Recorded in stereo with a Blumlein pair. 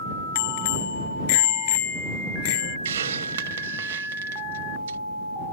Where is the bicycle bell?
50° left.